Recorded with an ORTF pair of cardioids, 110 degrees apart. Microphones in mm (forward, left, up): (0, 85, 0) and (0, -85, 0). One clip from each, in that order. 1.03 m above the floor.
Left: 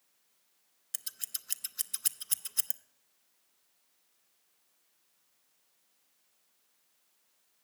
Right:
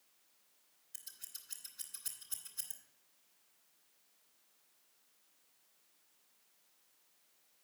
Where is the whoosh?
No whoosh in this recording.